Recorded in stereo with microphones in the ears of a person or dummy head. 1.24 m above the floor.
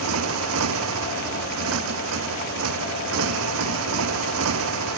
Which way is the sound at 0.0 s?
85° right.